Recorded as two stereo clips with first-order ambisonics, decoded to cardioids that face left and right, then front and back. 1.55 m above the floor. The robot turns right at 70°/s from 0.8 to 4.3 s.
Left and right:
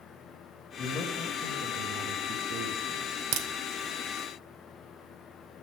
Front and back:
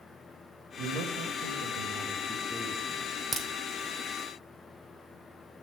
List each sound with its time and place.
0.8 s a man speaking: 155° left, 1.3 m; by 3.1 s 50° right, 1.3 m
3.3 s a crack: 105° right, 0.8 m; by 3.5 s 95° right, 0.8 m